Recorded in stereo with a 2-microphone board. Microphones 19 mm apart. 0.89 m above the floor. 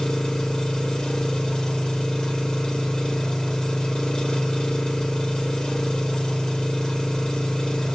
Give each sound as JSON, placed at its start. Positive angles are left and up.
{"t": 0.0, "sound": "an engine running", "side_deg": 45, "distance_m": 1.4}